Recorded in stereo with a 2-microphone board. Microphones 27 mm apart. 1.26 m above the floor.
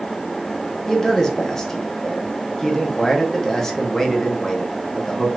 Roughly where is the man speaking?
Centre.